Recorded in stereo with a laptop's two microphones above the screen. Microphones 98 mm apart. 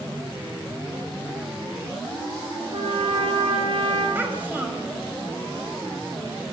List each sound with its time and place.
2.7 s a trumpet: 65° right (ahead or behind), 6.5 m
4.2 s a child speaking: 20° right (ahead or behind), 4.5 m